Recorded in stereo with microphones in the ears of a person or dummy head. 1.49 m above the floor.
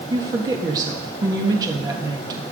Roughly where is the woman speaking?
Right.